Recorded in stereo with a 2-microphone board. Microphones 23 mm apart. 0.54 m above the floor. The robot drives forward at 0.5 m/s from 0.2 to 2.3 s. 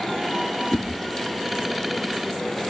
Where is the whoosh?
80° left, 2 m.